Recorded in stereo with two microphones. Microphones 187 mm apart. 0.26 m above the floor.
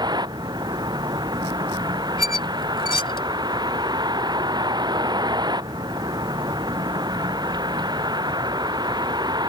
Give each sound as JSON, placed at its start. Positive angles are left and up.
{"t": 0.0, "sound": "a vehicle", "side_deg": -20}
{"t": 2.2, "sound": "a squeak", "side_deg": 25}